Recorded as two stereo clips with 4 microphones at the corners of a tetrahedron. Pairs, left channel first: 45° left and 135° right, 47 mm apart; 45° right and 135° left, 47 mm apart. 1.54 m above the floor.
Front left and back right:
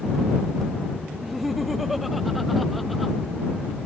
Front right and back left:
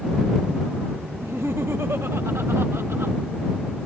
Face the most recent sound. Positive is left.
turn(degrees=135)